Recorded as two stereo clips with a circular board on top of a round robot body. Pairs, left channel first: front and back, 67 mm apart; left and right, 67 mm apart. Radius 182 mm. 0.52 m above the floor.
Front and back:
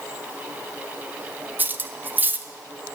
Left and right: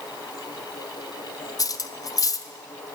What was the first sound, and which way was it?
Cutlery clinking, 120° left.